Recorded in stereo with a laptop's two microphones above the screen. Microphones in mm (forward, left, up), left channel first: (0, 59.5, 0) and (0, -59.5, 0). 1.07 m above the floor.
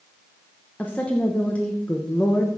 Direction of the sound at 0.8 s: 10° left (ahead or behind).